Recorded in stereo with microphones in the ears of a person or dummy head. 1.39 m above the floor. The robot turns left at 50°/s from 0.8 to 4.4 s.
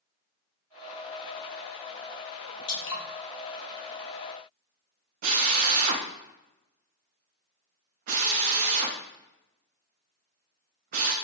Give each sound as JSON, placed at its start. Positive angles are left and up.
{"t": 2.7, "sound": "dripping", "side_deg": 65, "distance_m": 1.2}
{"t": 5.2, "sound": "a drill", "side_deg": -45, "distance_m": 0.6}